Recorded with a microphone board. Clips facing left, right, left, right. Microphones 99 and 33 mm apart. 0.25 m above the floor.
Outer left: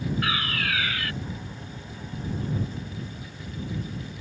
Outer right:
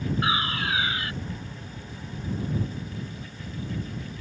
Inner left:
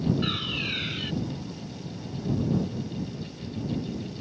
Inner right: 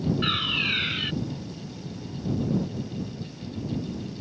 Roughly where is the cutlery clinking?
No cutlery clinking in this recording.